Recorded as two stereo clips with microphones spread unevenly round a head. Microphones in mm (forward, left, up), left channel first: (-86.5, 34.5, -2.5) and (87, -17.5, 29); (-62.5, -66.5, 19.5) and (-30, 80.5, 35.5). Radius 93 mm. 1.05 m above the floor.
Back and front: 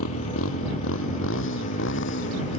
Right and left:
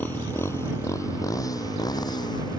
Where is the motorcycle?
Straight behind; by 2.6 s 165° right.